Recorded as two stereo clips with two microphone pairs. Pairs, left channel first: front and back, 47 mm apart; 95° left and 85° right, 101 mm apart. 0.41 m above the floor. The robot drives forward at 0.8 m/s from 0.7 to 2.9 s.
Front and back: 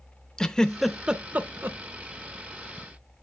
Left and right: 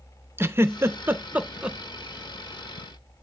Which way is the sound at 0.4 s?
55° right.